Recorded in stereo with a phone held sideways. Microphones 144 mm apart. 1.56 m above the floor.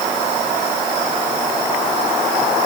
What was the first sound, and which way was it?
Only background noise.